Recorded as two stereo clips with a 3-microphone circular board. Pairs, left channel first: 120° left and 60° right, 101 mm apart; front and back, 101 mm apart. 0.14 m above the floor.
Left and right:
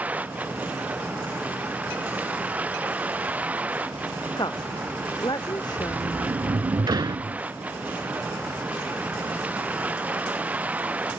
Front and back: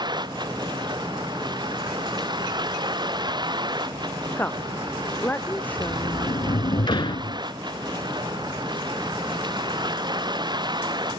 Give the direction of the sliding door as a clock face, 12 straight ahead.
1 o'clock.